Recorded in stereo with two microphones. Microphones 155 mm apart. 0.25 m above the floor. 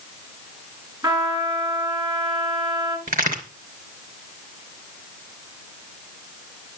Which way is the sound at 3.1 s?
60° right (ahead or behind).